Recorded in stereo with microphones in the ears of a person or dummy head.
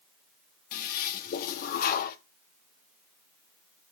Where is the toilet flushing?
50° left (ahead or behind), 0.6 m.